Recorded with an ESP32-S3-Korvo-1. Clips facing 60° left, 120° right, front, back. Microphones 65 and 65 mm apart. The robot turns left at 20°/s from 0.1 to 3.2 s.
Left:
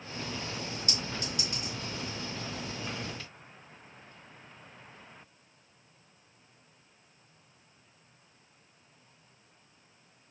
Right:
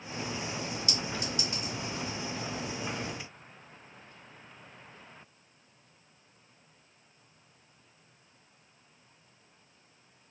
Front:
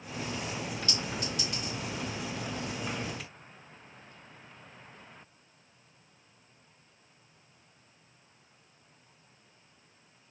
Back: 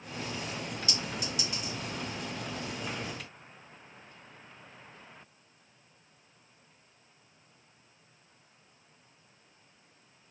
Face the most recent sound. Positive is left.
turn(degrees=60)